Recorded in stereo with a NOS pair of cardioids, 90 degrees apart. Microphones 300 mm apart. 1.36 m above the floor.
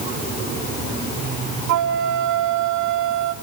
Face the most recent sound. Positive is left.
turn(degrees=-65)